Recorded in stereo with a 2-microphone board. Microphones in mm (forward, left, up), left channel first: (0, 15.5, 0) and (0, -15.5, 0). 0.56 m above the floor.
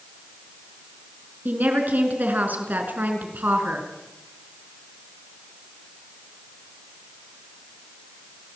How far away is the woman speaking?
About 5.5 m.